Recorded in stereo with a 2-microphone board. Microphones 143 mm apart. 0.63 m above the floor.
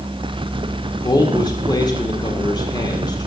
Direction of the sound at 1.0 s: 30° left (ahead or behind).